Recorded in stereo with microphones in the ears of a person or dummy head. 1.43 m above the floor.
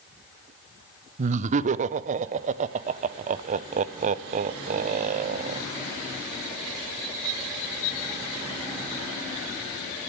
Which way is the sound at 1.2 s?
50° right (ahead or behind).